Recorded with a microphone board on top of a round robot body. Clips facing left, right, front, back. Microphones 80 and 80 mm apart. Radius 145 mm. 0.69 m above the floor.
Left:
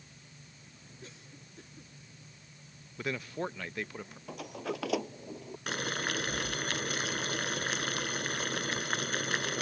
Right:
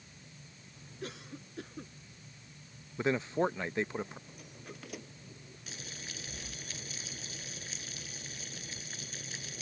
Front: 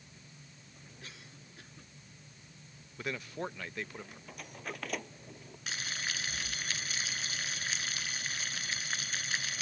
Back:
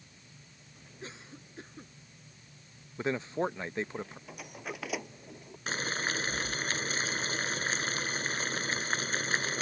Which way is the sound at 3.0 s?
135° right.